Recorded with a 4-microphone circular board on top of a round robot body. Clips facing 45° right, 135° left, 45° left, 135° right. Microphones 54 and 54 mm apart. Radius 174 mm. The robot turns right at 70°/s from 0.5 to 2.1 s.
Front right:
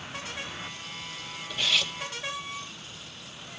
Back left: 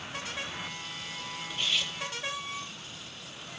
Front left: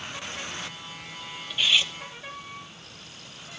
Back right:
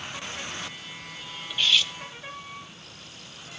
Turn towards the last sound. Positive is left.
turn(degrees=0)